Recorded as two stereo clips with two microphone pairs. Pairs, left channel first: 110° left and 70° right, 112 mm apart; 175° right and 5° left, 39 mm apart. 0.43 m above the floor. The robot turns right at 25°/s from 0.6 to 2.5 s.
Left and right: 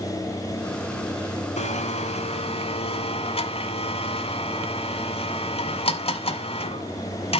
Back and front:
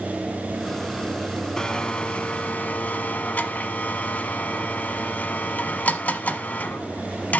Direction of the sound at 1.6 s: 115° left.